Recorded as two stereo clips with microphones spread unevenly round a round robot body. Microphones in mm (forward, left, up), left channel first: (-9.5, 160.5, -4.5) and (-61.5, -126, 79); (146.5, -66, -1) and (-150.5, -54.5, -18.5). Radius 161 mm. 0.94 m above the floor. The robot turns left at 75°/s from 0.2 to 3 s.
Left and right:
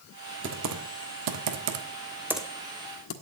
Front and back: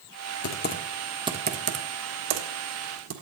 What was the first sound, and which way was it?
Typing on a keyboard, 45° right.